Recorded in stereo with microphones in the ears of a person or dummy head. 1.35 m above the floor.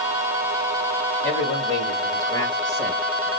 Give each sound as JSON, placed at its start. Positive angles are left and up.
{"t": 1.2, "sound": "a man speaking", "side_deg": 30, "distance_m": 2.5}